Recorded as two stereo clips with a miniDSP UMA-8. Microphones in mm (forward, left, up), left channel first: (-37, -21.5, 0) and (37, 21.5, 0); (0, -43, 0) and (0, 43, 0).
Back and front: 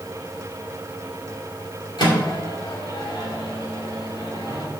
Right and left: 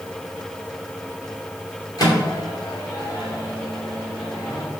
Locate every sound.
2.0 s a microwave: 125° right, 2.5 m